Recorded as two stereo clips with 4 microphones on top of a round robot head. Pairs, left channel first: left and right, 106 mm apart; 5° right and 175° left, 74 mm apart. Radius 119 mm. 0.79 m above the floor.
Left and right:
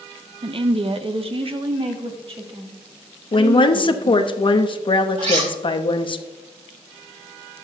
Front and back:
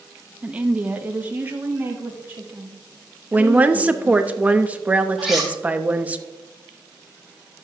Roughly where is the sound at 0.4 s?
Right.